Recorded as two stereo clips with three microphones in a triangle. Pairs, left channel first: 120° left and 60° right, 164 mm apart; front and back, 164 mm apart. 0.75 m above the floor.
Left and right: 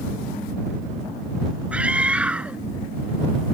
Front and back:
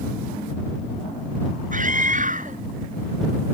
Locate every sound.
1.7 s a scream: 145° right